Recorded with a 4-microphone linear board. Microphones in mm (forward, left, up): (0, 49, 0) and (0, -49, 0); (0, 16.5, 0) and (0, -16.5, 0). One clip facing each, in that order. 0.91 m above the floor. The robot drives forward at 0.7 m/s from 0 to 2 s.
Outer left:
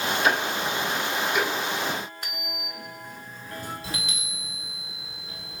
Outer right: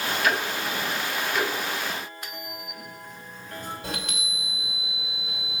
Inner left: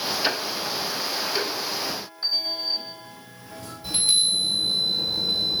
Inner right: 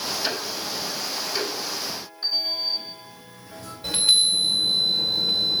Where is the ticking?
25° left (ahead or behind), 0.7 m; by 1.5 s 10° left (ahead or behind), 1.5 m.